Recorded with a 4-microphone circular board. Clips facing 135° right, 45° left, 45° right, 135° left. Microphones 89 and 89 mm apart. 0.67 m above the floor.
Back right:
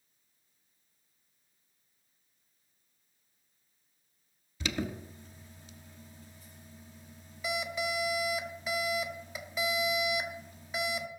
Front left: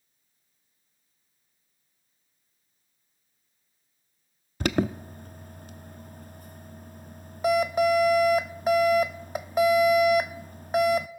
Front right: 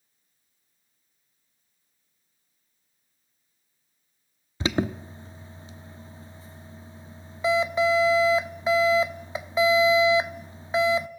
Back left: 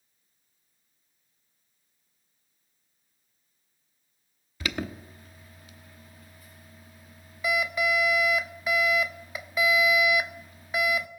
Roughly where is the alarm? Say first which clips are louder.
Front left 9 dB, front right 7 dB; ahead.